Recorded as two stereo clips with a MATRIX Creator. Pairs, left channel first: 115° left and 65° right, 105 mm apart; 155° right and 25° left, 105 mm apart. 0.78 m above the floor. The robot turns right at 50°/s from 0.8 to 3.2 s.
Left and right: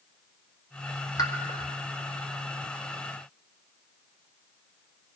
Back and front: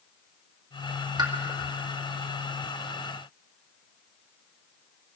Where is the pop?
65° left, 1.2 m; by 1.3 s 70° left, 1.2 m.